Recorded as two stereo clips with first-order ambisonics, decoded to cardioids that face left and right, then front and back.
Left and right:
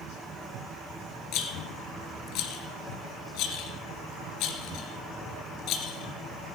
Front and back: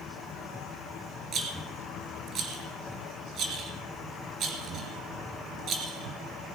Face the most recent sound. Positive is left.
turn(degrees=125)